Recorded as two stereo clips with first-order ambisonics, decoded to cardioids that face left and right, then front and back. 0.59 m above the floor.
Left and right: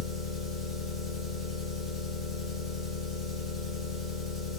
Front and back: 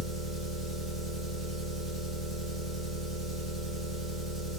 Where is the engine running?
125° left, 1.4 m.